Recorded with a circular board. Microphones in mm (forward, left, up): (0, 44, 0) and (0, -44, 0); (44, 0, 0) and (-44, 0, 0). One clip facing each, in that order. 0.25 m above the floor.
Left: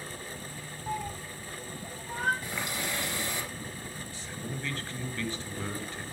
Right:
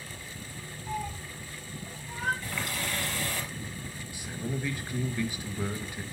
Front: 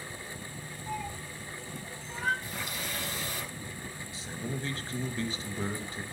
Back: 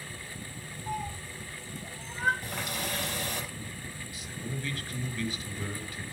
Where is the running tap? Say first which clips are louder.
Even, back 3 dB; 160° left, 4 m.